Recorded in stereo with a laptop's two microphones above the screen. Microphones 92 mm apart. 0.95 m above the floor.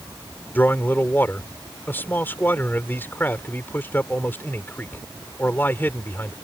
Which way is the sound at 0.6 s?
25° left (ahead or behind).